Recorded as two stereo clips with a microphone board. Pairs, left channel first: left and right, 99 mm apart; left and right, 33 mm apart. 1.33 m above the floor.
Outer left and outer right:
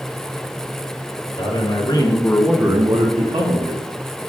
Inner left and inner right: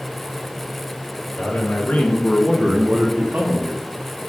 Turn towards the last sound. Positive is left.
turn(degrees=-80)